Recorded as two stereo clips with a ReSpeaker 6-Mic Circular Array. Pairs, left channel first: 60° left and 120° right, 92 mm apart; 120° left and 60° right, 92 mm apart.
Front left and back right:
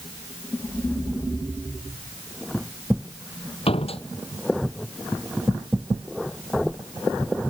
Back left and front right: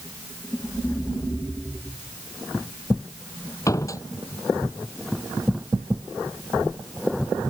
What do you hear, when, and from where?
3.7 s a door slam: 65° left